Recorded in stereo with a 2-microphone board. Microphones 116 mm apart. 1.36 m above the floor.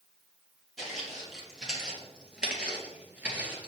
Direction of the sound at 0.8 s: 5° right (ahead or behind).